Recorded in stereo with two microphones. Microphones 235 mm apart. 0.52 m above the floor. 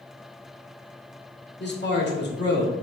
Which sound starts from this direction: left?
A man speaking, at 1.6 s.